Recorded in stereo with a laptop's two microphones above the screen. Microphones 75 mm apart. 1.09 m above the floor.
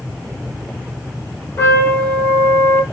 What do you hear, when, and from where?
1.6 s a trumpet: 40° left (ahead or behind), 1.7 m